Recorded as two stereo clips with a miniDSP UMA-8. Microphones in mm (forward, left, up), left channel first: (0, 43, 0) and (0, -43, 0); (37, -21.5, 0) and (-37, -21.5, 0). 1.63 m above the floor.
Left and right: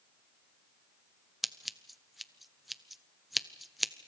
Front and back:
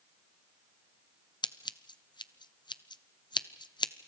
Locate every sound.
1.4 s scissors: straight ahead, 0.7 m